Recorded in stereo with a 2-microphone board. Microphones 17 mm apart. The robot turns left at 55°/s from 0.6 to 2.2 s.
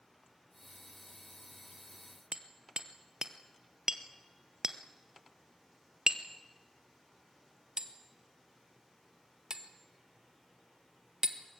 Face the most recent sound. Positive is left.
turn(degrees=-45)  # may be behind; listen again after turning